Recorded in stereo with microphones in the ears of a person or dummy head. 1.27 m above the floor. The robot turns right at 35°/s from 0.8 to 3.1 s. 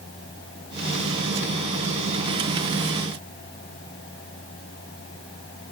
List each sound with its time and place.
Only background noise.